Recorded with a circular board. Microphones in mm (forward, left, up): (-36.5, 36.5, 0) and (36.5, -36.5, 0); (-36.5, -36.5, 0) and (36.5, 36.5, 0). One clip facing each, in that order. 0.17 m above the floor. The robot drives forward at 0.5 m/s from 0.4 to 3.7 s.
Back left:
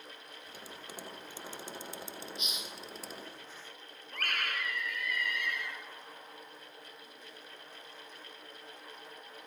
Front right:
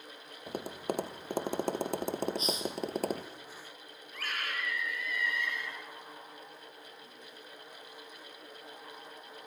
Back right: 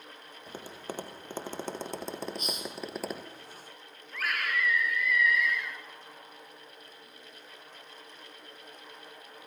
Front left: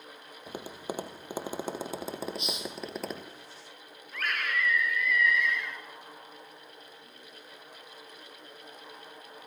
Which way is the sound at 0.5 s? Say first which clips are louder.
Front right 15 dB, front left 3 dB; 30° right.